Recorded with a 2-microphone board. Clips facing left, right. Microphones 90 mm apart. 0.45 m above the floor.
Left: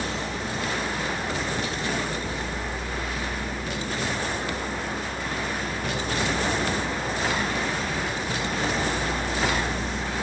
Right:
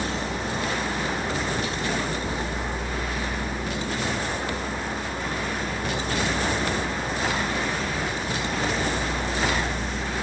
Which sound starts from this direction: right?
A vehicle, at 0.0 s.